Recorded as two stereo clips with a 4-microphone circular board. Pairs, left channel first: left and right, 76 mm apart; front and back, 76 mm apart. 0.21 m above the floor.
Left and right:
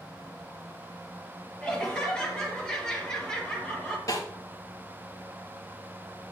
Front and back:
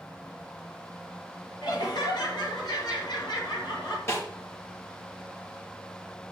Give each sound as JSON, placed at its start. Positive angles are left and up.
{"t": 1.6, "sound": "laughter", "azimuth_deg": 10, "distance_m": 4.5}
{"t": 4.1, "sound": "a snare drum", "azimuth_deg": 50, "distance_m": 4.5}